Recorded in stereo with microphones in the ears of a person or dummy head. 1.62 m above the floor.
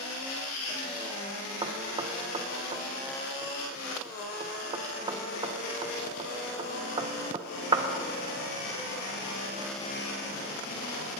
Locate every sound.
1.6 s knocking: 25° right (ahead or behind), 1.4 m